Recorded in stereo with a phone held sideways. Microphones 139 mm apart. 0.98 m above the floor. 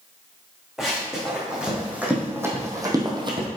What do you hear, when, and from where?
0.8 s running footsteps: centre (ahead or behind), 3.5 m; by 3.5 s 40° right (ahead or behind), 1.6 m